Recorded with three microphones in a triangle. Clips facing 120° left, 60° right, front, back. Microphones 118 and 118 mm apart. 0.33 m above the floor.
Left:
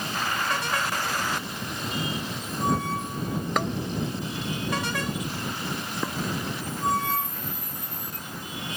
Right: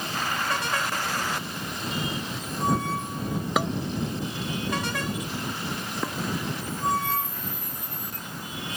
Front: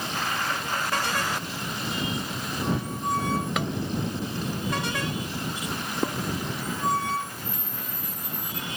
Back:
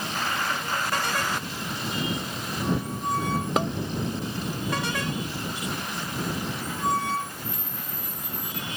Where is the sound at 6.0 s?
30° left.